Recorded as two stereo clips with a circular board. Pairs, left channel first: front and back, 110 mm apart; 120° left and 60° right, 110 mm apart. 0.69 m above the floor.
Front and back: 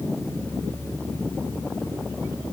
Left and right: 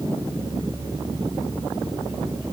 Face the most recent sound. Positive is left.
No sound to turn to.